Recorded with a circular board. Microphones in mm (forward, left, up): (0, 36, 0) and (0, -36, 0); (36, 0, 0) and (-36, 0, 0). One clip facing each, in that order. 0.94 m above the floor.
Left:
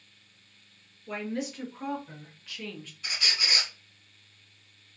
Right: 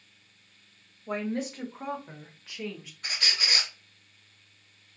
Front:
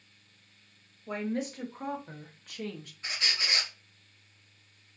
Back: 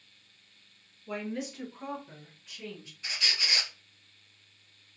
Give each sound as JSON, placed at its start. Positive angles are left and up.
{"t": 1.1, "sound": "a woman speaking", "azimuth_deg": -50, "distance_m": 1.3}
{"t": 3.0, "sound": "a squeak", "azimuth_deg": -55, "distance_m": 1.4}